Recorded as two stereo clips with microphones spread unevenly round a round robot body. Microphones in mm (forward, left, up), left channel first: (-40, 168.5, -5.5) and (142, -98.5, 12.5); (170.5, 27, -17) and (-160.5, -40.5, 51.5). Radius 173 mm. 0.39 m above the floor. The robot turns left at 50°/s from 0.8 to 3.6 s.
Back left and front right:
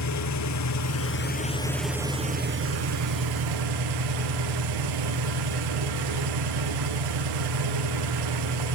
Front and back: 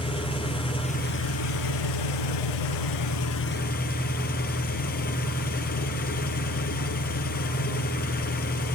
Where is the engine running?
85° left, 3 m; by 8.8 s 55° right, 3 m.